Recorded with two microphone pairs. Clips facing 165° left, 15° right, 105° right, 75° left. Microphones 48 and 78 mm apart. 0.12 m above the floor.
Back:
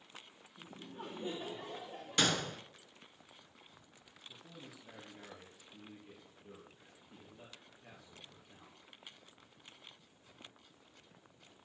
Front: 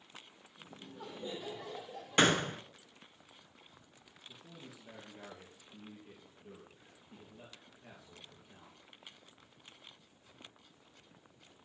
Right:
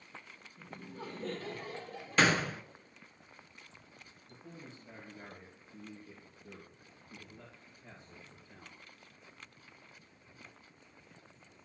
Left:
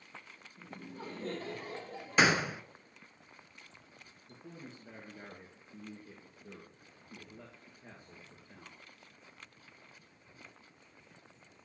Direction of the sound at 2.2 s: 5° left.